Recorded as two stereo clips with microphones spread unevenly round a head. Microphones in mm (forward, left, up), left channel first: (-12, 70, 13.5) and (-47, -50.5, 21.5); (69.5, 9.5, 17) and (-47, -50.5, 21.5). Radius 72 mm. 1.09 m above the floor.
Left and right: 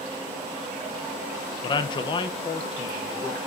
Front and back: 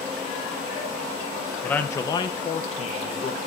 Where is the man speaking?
100° left, 0.9 m; by 3.4 s 10° left, 1.3 m.